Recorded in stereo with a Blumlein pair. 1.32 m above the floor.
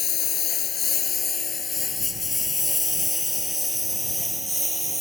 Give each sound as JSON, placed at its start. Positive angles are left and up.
{"t": 0.0, "sound": "a lawn mower", "azimuth_deg": 30}